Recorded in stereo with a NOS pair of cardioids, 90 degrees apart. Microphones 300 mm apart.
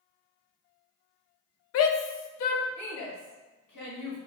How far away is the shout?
About 0.5 m.